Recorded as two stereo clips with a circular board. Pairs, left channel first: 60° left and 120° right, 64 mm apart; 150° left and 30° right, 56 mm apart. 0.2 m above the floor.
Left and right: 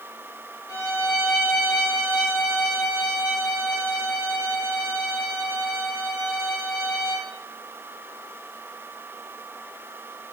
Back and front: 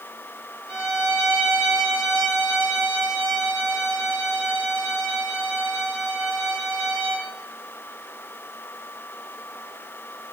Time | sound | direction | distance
0.7 | a violin | 60° left | 7.5 m